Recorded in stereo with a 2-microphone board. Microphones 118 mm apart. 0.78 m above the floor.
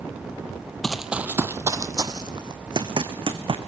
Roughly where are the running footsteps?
Centre.